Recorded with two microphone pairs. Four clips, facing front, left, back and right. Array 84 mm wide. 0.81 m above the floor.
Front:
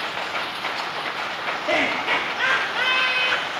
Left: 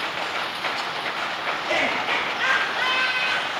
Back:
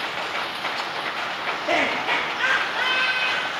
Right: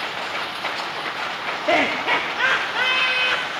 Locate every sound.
1.7 s laughter: 95° right, 1.5 m; by 3.5 s 35° right, 0.9 m